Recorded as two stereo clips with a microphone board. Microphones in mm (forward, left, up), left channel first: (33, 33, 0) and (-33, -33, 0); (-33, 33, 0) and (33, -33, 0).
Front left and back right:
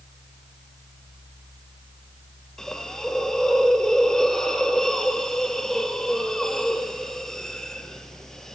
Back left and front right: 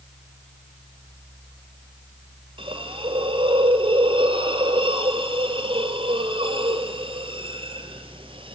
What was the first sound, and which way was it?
A hiss, 40° right.